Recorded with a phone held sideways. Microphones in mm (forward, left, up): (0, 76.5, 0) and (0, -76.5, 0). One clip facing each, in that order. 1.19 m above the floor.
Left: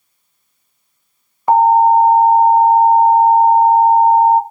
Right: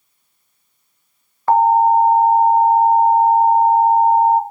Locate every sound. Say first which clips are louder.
1.5 s an alarm: left 3 dB; 15° left (ahead or behind), 1.1 m